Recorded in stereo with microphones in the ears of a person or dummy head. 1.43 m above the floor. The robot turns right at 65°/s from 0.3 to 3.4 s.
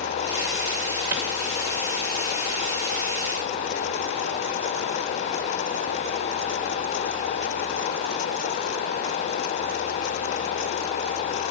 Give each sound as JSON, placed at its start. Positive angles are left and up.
{"t": 1.1, "sound": "a clap", "side_deg": -15, "distance_m": 2.0}